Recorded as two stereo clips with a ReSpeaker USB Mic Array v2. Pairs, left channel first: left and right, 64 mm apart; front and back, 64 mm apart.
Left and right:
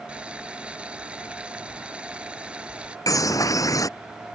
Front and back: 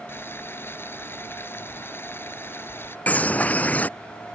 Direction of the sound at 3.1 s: 65° left.